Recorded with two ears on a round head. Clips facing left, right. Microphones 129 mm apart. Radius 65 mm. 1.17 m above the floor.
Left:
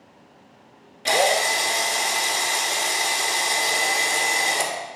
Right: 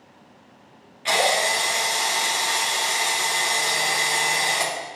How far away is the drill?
About 1.4 m.